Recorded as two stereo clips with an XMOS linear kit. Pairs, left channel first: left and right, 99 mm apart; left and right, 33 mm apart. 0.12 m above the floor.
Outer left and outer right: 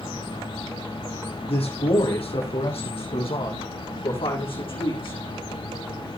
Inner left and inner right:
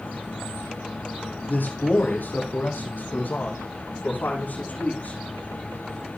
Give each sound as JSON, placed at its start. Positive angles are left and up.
{"t": 1.5, "sound": "a man speaking", "side_deg": 75, "distance_m": 4.5}